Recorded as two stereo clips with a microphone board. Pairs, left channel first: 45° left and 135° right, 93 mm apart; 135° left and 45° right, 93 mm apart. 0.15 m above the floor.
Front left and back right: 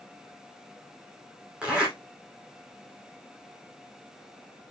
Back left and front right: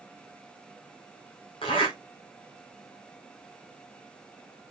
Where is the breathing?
No breathing in this recording.